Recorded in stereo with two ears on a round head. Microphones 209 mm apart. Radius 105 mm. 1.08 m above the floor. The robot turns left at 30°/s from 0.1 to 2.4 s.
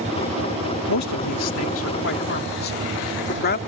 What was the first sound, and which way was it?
A man speaking, 90° left.